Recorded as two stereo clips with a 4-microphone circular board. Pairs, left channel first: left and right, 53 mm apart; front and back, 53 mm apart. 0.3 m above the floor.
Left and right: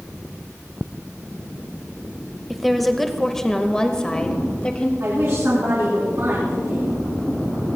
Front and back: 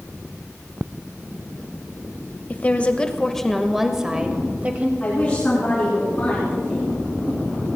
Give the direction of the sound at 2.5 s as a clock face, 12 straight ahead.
12 o'clock.